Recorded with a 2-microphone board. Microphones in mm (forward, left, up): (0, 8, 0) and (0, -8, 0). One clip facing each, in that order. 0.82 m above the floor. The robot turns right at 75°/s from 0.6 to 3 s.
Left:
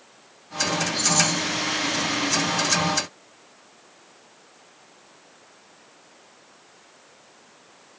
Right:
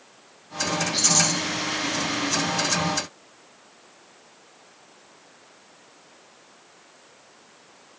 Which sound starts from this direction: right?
A rattle, at 0.9 s.